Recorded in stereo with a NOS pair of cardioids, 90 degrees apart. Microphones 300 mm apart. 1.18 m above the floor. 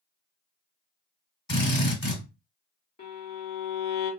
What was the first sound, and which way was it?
A drill, 35° left.